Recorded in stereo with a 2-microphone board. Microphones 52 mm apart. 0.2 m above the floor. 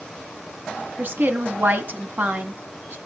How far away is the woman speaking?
About 2 m.